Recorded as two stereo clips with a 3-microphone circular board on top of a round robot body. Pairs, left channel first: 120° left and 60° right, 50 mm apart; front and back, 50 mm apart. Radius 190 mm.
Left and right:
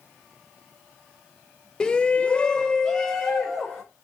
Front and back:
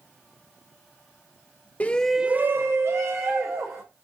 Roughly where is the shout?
Ahead left.